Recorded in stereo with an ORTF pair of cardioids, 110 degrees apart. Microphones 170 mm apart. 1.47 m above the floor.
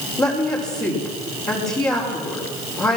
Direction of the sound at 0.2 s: 20° left.